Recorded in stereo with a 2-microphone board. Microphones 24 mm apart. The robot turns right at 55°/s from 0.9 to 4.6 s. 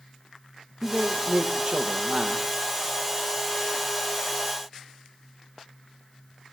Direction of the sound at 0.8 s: 110° right.